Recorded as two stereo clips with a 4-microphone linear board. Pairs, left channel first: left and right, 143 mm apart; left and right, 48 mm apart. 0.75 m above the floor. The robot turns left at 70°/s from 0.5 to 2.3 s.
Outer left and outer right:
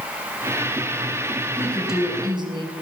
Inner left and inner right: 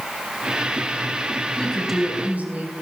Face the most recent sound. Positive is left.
turn(degrees=-30)